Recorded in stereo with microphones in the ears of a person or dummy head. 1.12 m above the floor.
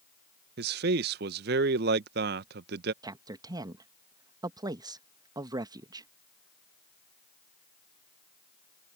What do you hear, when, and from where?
0.6 s a man speaking: 55° right (ahead or behind)
3.0 s a man speaking: 20° right (ahead or behind)